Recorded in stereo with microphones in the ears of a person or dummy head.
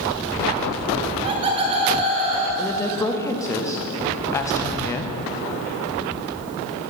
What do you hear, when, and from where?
1.0 s laughter: 25° right (ahead or behind), 0.8 m
2.6 s a woman speaking: 15° left (ahead or behind), 0.6 m